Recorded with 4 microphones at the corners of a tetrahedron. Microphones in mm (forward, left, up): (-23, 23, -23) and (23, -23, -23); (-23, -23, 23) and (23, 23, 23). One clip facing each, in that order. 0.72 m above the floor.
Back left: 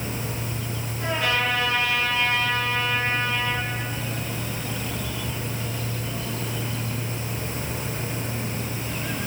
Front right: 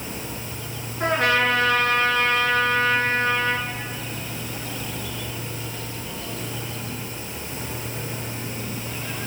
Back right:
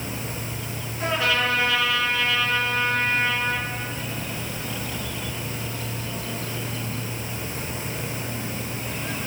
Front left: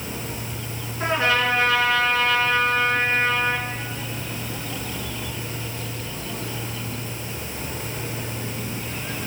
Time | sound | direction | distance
1.0 | a trumpet | 10° right | 3 m